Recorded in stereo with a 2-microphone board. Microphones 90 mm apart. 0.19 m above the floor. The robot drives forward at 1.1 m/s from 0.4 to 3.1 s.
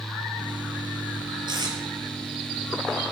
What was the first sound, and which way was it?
Tape being pulled, 55° right (ahead or behind).